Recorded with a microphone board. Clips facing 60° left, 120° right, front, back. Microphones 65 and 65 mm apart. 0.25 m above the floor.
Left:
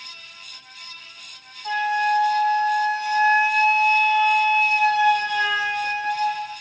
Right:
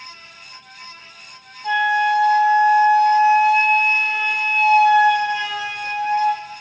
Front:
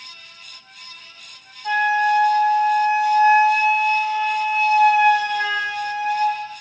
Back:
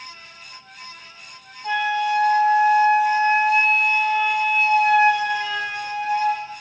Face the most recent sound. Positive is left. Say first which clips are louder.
# right 4 dB, front 4 dB
turn(degrees=-140)